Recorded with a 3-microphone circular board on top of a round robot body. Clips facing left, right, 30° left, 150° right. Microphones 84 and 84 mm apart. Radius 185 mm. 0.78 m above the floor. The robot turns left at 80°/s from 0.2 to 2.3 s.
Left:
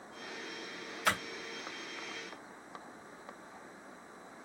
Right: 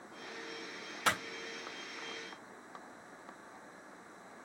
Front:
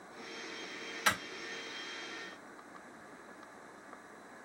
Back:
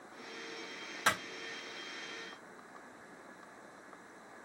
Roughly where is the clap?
Right.